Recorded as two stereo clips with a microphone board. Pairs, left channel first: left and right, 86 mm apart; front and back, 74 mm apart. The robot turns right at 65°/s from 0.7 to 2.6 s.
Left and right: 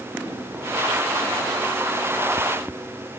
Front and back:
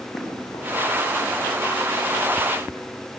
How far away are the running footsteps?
About 8 m.